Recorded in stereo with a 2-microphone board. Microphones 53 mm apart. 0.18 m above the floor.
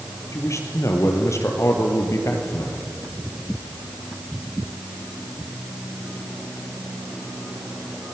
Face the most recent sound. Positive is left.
turn(degrees=70)  # may be behind; listen again after turning